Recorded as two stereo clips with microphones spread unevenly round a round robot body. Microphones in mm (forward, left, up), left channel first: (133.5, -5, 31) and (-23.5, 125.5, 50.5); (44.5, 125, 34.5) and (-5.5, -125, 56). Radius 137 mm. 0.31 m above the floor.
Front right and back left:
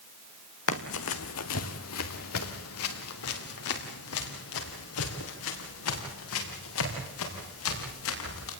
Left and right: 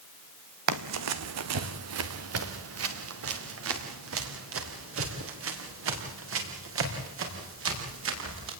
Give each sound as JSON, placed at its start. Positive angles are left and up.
{"t": 0.7, "sound": "running footsteps", "azimuth_deg": -80, "distance_m": 1.2}